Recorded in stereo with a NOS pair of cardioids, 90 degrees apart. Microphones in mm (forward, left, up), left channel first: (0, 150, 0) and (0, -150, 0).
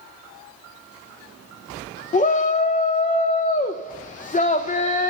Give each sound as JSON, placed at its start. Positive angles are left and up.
{"t": 2.1, "sound": "a shout", "azimuth_deg": 25, "distance_m": 0.6}